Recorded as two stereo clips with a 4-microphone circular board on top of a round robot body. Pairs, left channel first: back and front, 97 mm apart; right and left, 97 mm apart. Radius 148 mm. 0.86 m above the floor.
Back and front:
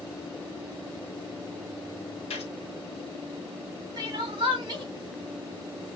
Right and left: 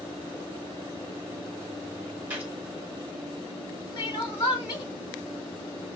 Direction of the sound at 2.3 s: 165° left.